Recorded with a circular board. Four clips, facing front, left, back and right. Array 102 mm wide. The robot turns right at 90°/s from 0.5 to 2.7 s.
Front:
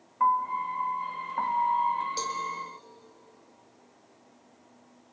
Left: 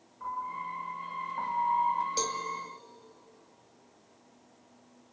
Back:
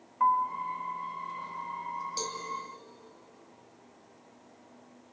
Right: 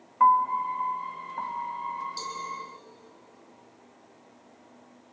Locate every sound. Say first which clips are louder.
0.2 s a piano: right 15 dB, front 1 dB; 85° right, 1.2 m; by 2.1 s 55° left, 1.2 m
2.2 s a cowbell: left 3 dB, front 5 dB; 70° left, 2 m; by 2.4 s 90° left, 2 m